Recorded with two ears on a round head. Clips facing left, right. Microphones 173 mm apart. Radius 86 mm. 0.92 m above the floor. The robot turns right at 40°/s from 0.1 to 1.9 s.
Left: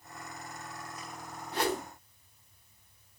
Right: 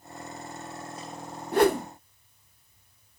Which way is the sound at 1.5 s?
45° right (ahead or behind).